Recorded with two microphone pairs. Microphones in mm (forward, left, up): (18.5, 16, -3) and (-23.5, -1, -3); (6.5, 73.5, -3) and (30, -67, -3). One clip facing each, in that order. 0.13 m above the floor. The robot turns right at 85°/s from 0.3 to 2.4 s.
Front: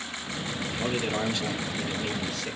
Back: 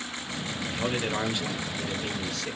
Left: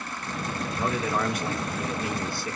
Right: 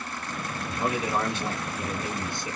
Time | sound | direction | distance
0.7 | a man speaking | 170° right | 1.6 m